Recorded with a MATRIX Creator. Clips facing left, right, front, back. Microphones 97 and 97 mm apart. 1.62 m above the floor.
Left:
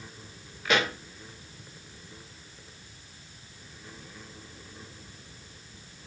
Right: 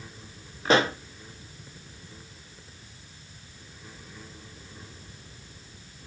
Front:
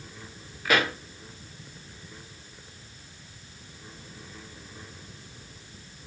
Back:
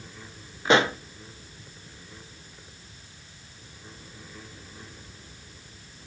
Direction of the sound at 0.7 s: 130° right.